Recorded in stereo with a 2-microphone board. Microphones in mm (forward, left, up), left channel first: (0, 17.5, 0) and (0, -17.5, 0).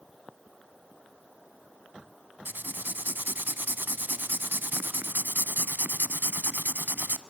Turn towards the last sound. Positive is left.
turn(degrees=-70)  # may be behind; listen again after turning